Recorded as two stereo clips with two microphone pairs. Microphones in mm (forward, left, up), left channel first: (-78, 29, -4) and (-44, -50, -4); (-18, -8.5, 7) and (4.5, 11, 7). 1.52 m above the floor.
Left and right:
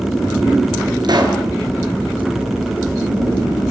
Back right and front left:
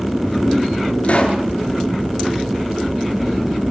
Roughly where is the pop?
Right.